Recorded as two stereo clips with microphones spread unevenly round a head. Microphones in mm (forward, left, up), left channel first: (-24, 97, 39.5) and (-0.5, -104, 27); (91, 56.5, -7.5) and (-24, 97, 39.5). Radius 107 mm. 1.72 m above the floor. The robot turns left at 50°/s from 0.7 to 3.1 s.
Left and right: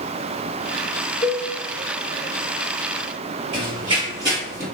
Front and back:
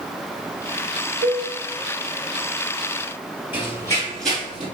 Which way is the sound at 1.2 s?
160° left.